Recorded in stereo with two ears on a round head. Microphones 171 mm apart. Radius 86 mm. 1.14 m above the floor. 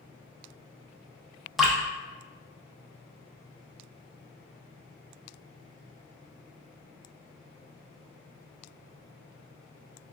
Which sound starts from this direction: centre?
Dripping, at 1.6 s.